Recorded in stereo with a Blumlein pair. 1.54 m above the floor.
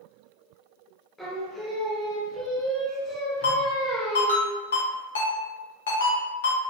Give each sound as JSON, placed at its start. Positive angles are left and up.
{"t": 1.2, "sound": "singing", "azimuth_deg": 10, "distance_m": 2.0}
{"t": 3.4, "sound": "a ringtone", "azimuth_deg": 65, "distance_m": 1.9}